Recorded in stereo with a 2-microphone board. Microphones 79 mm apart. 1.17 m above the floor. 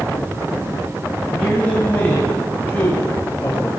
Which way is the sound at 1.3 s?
15° left (ahead or behind).